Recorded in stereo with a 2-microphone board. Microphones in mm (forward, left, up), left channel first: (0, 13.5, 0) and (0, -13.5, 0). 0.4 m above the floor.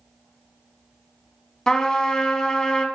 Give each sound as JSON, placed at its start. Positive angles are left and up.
{"t": 1.7, "sound": "a trumpet", "side_deg": 25, "distance_m": 0.7}